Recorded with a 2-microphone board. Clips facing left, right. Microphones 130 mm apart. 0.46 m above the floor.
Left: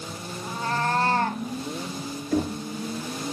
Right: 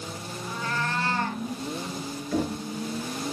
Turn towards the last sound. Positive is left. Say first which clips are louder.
# left 2 dB
turn(degrees=40)  # may be behind; listen again after turning